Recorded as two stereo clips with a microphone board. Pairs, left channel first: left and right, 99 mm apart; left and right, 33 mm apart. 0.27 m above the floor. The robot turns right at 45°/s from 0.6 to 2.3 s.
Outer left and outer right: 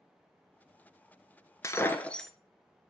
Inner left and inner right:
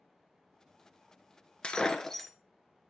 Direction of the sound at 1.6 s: 30° left (ahead or behind).